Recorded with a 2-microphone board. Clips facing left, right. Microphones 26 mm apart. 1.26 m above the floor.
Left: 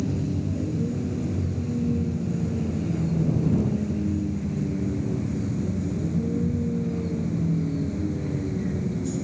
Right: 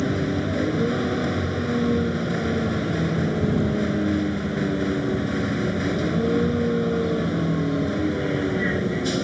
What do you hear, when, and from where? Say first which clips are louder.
0.0 s a vehicle: right 4 dB; 70° right (ahead or behind)